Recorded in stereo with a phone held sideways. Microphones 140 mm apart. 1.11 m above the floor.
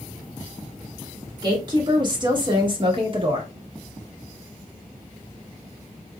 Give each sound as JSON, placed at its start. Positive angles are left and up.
{"t": 1.4, "sound": "a woman speaking", "side_deg": -35, "distance_m": 2.0}